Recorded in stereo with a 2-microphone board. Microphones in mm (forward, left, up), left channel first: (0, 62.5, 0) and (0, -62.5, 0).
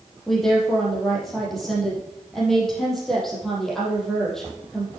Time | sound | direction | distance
0.3 | a woman speaking | 5° left (ahead or behind) | 5 m